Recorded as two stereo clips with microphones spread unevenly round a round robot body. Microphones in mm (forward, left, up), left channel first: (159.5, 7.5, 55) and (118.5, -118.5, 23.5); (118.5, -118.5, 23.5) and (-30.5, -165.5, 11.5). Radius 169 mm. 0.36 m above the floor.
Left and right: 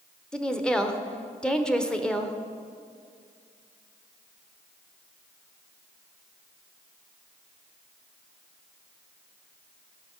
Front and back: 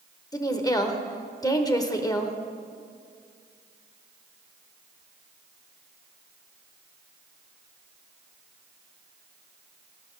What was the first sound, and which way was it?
A woman speaking, 30° right.